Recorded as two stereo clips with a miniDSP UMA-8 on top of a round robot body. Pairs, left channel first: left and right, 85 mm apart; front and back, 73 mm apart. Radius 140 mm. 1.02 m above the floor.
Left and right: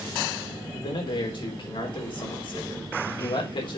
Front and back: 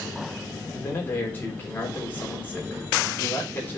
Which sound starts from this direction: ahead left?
A man speaking, at 0.7 s.